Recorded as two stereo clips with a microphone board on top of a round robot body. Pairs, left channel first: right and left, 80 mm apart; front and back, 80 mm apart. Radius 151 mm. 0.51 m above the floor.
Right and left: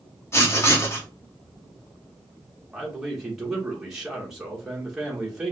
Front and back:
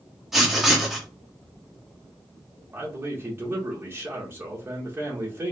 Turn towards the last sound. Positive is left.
turn(degrees=170)